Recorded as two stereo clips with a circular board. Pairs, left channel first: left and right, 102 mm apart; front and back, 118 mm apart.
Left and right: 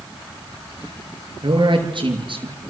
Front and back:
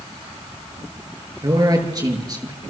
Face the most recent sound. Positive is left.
turn(degrees=-125)